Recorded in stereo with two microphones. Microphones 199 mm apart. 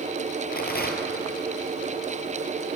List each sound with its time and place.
0.5 s a rattle: 50° left (ahead or behind), 2.5 m